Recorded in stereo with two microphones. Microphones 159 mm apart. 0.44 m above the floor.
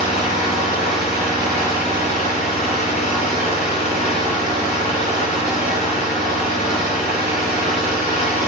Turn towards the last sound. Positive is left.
turn(degrees=45)  # may be behind; listen again after turning